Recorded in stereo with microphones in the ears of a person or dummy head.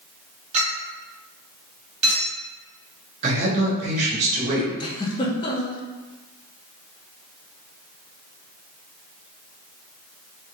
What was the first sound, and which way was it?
A clink, 40° right (ahead or behind).